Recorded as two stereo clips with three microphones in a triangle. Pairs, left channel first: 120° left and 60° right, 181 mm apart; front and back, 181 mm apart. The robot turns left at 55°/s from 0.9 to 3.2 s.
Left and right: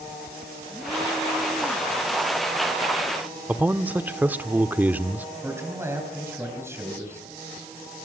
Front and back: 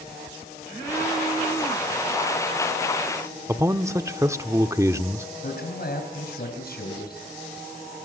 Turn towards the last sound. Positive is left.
turn(degrees=15)